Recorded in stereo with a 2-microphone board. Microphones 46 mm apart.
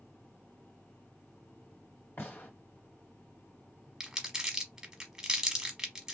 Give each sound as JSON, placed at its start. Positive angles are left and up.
{"t": 2.2, "sound": "a gunshot", "side_deg": 55, "distance_m": 2.0}
{"t": 4.0, "sound": "crumpling", "side_deg": -10, "distance_m": 0.9}